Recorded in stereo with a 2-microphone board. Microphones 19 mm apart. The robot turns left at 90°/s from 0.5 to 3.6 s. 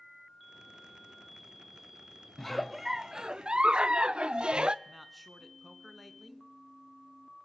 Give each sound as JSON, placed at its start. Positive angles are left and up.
{"t": 2.4, "sound": "a giggle", "azimuth_deg": 25, "distance_m": 0.5}
{"t": 4.8, "sound": "a man speaking", "side_deg": -5, "distance_m": 2.0}